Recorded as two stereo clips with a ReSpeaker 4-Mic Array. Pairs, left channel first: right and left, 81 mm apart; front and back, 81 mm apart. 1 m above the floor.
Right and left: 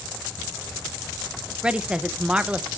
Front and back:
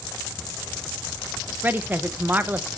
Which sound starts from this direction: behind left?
A woman speaking, at 1.6 s.